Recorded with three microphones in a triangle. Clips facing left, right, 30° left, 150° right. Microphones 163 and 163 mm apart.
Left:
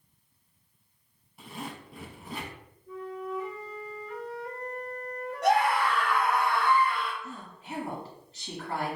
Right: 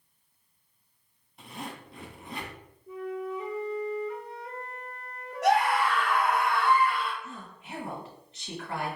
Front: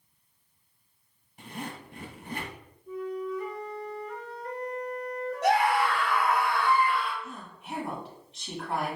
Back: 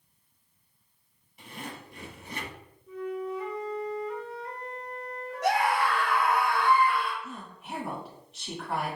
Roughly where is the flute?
Ahead.